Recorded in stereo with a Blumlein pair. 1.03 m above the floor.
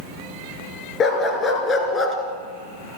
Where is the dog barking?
25° left, 4.5 m; by 2.2 s 15° left, 3.5 m.